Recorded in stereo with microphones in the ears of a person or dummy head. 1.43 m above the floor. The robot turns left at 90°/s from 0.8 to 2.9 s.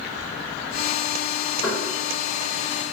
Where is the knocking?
30° left (ahead or behind), 1.2 m; by 1.8 s 40° left (ahead or behind), 1.2 m.